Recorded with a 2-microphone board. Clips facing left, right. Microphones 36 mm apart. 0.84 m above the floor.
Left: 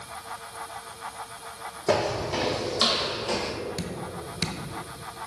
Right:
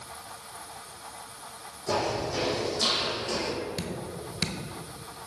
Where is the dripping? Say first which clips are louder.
Left 1 dB; 10° right (ahead or behind), 0.7 m.